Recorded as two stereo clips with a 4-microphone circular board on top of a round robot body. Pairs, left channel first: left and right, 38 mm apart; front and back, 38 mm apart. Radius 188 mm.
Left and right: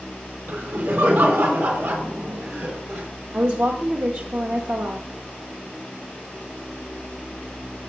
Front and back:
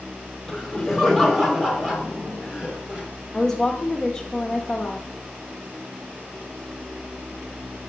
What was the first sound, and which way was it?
Laughter, 85° right.